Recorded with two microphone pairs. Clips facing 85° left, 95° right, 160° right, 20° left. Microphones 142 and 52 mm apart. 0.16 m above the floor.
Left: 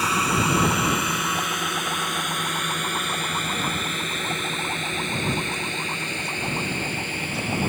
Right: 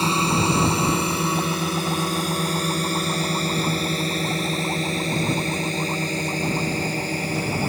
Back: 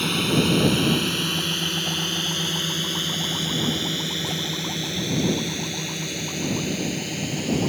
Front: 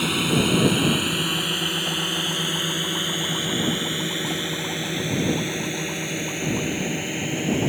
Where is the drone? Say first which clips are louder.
Right 2 dB, even; 60° right; by 7.7 s 45° right.